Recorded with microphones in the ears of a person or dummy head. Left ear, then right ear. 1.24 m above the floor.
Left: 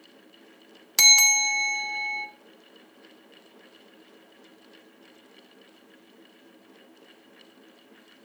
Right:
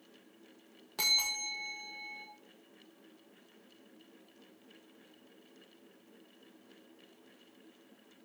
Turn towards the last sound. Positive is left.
turn(degrees=60)  # may be behind; listen again after turning